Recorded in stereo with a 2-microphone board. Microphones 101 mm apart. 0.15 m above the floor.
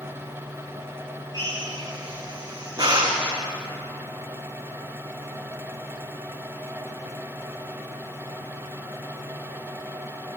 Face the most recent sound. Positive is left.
turn(degrees=-40)  # may be behind; listen again after turning